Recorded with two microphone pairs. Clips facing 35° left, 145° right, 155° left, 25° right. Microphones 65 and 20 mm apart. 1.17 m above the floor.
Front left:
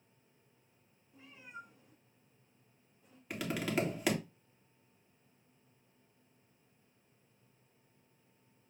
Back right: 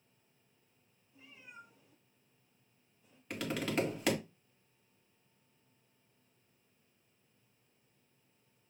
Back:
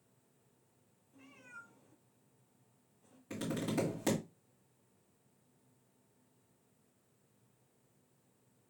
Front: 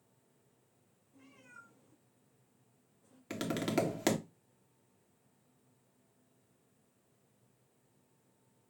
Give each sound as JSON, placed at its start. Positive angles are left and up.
{"t": 1.1, "sound": "a cat meowing", "azimuth_deg": 85, "distance_m": 2.5}
{"t": 3.3, "sound": "tapping", "azimuth_deg": -50, "distance_m": 1.1}